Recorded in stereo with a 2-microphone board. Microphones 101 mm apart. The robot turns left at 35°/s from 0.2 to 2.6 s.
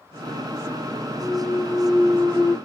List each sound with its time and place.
1.2 s a clunk: 175° left, 0.8 m; by 2.6 s 130° left, 0.8 m